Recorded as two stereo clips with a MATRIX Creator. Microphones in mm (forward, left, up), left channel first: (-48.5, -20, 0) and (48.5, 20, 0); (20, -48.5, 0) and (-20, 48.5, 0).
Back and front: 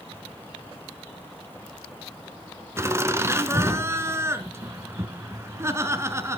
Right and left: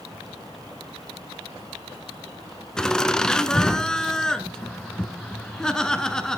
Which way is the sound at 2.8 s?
10° left.